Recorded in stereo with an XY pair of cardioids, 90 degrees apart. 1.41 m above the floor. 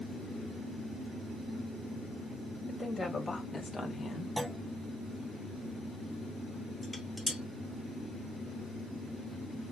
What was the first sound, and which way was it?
A woman speaking, 30° left.